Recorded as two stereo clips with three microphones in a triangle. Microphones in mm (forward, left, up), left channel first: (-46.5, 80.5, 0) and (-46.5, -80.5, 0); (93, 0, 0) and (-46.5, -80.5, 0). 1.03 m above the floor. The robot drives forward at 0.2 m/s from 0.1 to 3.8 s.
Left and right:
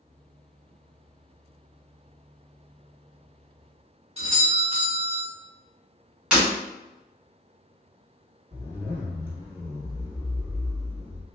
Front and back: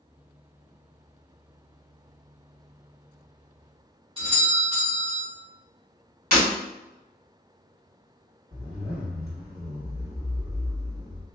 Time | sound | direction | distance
4.2 | a doorbell | 115° right | 1.2 m
6.3 | breaking glass | 175° right | 1.8 m
8.5 | a zipper | 165° right | 1.7 m